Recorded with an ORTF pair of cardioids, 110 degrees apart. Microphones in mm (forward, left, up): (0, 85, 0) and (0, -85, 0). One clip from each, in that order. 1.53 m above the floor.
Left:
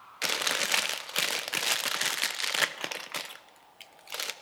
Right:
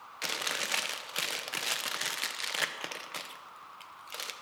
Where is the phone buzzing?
I don't hear a phone buzzing.